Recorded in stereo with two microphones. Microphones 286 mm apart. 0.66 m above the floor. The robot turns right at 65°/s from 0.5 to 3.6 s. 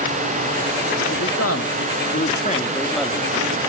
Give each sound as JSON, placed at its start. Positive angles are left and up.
{"t": 1.1, "sound": "a man speaking", "azimuth_deg": 55, "distance_m": 0.9}